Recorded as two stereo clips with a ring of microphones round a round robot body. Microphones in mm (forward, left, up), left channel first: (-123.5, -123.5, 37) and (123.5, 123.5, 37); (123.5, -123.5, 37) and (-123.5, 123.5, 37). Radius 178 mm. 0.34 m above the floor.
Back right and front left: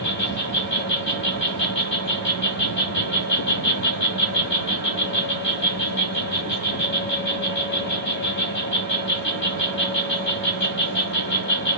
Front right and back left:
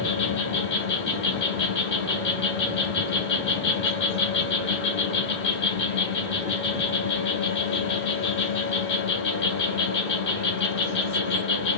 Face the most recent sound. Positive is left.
turn(degrees=-90)